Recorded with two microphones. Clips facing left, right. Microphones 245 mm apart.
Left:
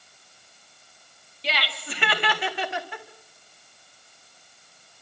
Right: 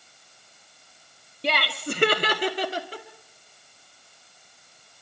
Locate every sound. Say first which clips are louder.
1.4 s laughter: right 5 dB; 55° right (ahead or behind), 1.3 m; by 3.0 s 35° right (ahead or behind), 2 m